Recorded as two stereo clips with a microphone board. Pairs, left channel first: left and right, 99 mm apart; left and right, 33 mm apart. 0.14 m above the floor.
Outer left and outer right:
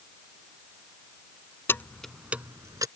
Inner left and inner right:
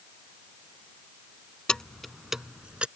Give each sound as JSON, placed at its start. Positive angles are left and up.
{"t": 1.7, "sound": "keys jangling", "side_deg": 25}